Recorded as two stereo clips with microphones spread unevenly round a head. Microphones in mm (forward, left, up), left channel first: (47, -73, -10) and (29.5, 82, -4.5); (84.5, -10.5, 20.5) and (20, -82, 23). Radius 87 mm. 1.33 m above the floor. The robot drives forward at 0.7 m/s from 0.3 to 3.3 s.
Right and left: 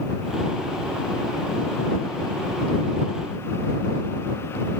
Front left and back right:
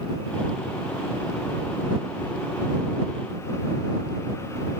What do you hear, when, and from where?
Only background noise.